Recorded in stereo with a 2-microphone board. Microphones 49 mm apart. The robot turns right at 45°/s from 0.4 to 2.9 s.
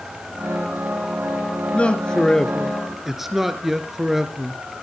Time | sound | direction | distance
1.7 | a man speaking | 135° left | 1.4 m